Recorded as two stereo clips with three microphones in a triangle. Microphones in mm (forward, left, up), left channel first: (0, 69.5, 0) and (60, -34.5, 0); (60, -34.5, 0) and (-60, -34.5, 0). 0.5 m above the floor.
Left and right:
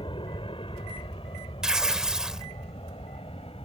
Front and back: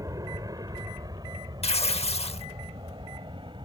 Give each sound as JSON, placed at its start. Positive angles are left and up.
{"t": 0.0, "sound": "an aircraft", "azimuth_deg": 135}
{"t": 1.6, "sound": "tearing paper", "azimuth_deg": 25}